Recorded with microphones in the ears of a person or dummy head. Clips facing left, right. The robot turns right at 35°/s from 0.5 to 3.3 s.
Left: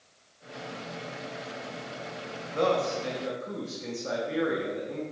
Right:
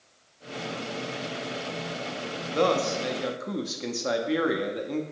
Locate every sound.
2.5 s a man speaking: 45° right (ahead or behind), 0.5 m; by 5.0 s 65° right (ahead or behind), 0.5 m